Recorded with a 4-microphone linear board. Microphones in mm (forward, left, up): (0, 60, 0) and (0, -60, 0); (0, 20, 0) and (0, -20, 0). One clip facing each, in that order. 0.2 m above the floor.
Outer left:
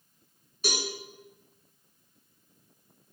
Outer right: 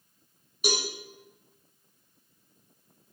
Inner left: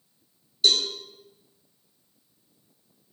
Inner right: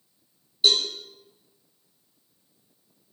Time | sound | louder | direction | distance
0.6 | a cowbell | outer right 3 dB, inner right 1 dB | 15° right (ahead or behind) | 2.5 m